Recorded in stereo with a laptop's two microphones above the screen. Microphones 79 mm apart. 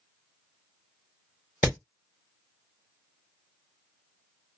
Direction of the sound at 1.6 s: 30° right (ahead or behind).